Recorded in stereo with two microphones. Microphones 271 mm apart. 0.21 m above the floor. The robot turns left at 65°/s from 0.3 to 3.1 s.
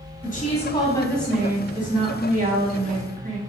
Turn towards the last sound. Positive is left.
turn(degrees=-120)